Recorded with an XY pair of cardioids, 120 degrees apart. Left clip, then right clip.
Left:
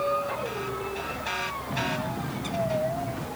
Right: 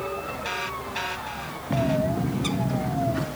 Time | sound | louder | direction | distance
1.7 | a bird | right 9 dB | 40° right | 0.6 m